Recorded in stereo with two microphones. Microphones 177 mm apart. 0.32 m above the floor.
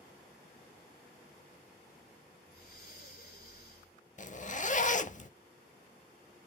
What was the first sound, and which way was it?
Breathing, 60° left (ahead or behind).